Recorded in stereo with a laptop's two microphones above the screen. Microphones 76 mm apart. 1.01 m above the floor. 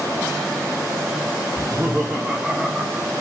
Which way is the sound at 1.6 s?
20° right (ahead or behind).